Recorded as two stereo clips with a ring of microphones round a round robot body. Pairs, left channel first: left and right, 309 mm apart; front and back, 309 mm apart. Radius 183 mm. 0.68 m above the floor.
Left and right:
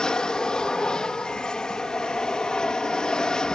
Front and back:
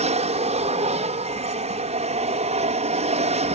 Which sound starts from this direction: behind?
An aircraft, at 0.0 s.